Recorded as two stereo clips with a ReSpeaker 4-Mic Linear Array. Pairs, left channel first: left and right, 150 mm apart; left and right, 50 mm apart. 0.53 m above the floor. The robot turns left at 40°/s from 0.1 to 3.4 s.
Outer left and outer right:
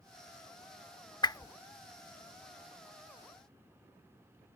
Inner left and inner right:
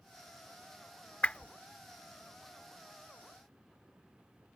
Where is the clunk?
I don't hear a clunk.